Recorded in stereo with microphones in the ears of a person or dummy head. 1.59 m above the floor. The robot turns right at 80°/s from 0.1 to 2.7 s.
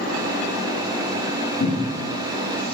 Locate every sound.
1.6 s a cupboard door: 65° left (ahead or behind), 1.6 m; by 2.1 s 45° left (ahead or behind), 1.6 m